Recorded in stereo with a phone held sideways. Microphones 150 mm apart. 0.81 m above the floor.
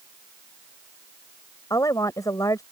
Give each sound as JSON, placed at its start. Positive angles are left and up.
{"t": 1.7, "sound": "a woman speaking", "side_deg": 25}